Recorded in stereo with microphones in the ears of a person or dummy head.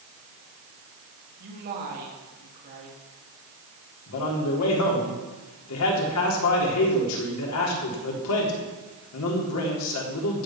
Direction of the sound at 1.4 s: 55° right (ahead or behind).